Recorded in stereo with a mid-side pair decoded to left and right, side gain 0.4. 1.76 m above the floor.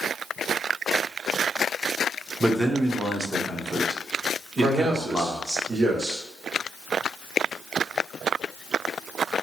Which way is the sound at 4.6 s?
55° right.